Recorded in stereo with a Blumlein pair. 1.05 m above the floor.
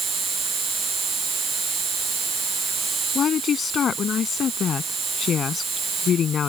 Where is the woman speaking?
25° left.